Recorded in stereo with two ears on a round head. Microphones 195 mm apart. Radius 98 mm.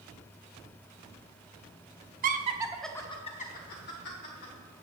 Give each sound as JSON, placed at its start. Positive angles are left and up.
{"t": 2.2, "sound": "laughter", "side_deg": -40, "distance_m": 0.8}